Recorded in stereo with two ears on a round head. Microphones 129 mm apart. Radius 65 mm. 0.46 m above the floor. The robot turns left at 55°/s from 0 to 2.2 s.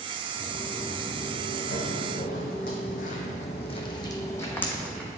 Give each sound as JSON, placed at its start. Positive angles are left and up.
{"t": 0.3, "sound": "footsteps", "side_deg": 15, "distance_m": 2.5}